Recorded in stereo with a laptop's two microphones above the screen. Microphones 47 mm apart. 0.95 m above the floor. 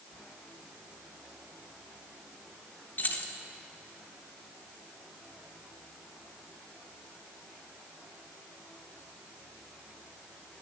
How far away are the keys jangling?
About 0.7 m.